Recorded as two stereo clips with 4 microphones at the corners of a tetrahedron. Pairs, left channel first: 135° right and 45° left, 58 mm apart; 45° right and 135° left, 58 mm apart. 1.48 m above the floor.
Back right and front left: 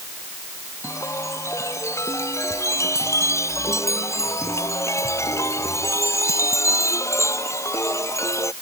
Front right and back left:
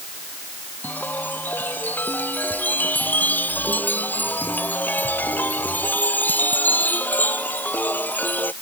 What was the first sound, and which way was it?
A chime, 100° right.